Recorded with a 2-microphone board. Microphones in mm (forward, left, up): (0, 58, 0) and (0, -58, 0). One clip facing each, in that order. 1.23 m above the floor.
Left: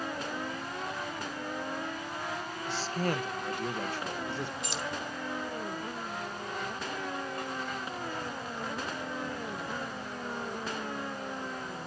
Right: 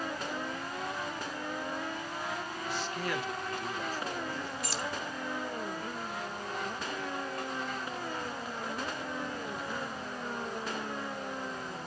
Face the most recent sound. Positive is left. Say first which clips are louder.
# even
turn(degrees=20)  # may be behind; listen again after turning